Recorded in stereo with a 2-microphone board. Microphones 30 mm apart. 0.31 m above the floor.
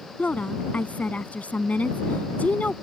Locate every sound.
0.2 s a woman speaking: 60° left (ahead or behind)